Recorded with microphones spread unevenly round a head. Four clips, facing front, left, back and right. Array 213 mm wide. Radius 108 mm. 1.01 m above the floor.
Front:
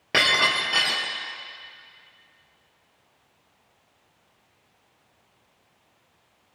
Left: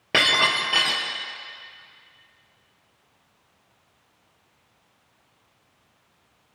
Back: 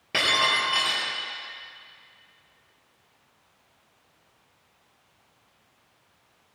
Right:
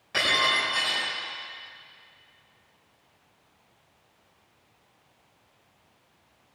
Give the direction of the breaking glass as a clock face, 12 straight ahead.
10 o'clock.